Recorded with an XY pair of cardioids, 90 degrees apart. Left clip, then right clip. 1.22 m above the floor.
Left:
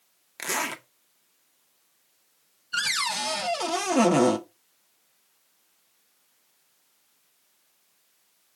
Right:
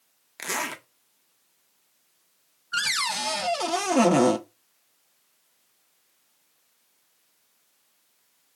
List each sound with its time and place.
0.4 s a zipper: 5° left, 0.9 m
2.7 s a cupboard door: 10° right, 0.7 m